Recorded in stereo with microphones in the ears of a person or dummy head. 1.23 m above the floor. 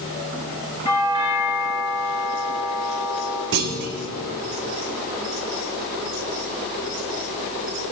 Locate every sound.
0.8 s a doorbell: 20° left (ahead or behind), 3.5 m
3.5 s a clunk: 60° right (ahead or behind), 1.6 m